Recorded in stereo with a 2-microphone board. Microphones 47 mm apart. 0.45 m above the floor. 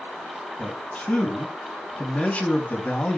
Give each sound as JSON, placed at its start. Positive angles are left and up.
{"t": 0.6, "sound": "a man speaking", "side_deg": 35, "distance_m": 3.5}